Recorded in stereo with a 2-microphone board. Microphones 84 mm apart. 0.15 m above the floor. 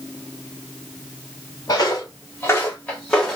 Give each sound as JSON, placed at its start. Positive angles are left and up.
{"t": 1.7, "sound": "footsteps", "side_deg": 50, "distance_m": 1.1}